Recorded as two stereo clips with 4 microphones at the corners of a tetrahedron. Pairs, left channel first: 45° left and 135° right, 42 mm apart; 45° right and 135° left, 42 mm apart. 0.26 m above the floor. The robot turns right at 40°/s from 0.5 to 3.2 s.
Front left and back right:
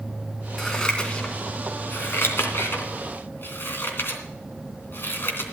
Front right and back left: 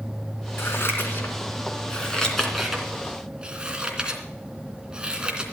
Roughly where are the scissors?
Ahead right.